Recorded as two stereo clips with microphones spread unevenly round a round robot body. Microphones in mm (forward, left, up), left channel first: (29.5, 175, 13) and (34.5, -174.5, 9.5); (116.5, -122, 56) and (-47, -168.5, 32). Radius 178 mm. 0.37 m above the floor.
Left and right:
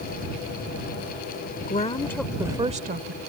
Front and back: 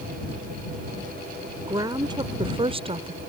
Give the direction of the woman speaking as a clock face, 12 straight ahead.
7 o'clock.